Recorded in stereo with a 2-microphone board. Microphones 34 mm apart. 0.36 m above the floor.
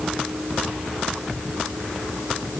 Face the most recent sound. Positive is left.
No sound to turn to.